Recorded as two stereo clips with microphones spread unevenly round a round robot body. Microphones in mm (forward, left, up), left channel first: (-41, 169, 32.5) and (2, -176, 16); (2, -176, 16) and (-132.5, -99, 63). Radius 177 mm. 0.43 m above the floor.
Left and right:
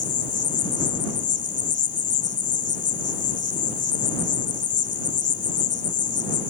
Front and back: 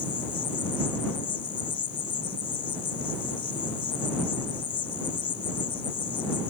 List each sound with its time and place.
0.0 s an insect: 30° left